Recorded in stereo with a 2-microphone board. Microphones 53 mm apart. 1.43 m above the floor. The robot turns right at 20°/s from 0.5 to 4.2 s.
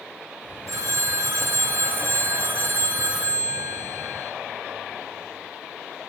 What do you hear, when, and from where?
0.7 s a phone ringing: 80° right, 0.7 m; by 4.3 s 10° right, 0.7 m